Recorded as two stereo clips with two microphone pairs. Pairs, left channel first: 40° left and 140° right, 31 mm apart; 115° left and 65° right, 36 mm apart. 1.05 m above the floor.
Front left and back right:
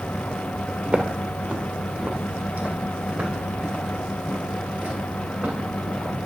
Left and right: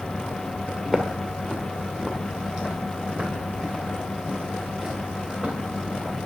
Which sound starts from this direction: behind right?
Footsteps, at 0.8 s.